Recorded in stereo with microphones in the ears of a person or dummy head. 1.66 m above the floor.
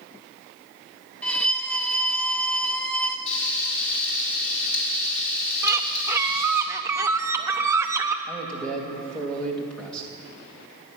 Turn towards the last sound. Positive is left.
turn(degrees=5)  # may be behind; listen again after turning